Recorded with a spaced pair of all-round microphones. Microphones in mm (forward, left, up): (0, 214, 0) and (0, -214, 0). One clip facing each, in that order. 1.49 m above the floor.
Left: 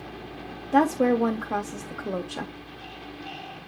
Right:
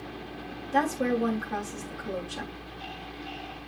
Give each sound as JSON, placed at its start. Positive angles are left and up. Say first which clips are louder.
{"t": 0.7, "sound": "a woman speaking", "louder": "left 6 dB", "side_deg": 85, "distance_m": 0.7}